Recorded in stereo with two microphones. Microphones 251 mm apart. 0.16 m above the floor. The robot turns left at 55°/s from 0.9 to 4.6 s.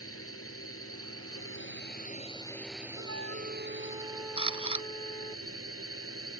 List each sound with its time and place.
0.0 s a drone: 100° left; by 6.4 s 100° right
3.0 s a flute: 105° right; by 5.4 s 165° left
4.4 s a camera shutter: 25° right (ahead or behind)